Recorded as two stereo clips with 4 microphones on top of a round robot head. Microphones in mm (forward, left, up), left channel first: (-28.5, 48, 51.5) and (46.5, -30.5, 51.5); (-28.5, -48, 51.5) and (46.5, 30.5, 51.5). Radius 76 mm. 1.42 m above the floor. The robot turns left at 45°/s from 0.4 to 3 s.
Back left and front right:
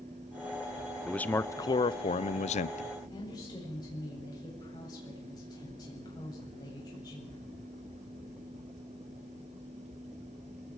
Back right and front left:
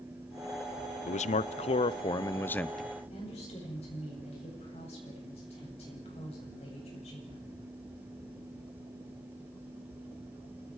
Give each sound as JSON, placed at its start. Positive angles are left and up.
{"t": 1.1, "sound": "a man speaking", "azimuth_deg": -140, "distance_m": 0.7}
{"t": 3.1, "sound": "a woman speaking", "azimuth_deg": -170, "distance_m": 8.0}